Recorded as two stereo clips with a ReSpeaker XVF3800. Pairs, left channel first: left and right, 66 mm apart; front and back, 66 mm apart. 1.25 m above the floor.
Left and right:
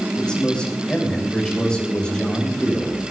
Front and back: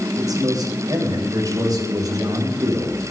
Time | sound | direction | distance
0.2 | a man speaking | 165° left | 7 m